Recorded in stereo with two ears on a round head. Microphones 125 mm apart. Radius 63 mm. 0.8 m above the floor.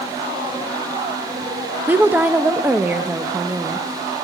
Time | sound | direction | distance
1.9 | a woman speaking | 10° right (ahead or behind) | 0.6 m